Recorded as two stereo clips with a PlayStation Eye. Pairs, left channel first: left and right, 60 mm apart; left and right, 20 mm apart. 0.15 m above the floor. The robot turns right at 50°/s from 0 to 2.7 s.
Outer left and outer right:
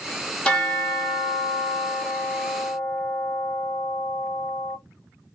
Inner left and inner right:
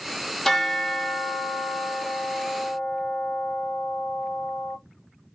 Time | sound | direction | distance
0.5 | a bell | 20° left | 0.9 m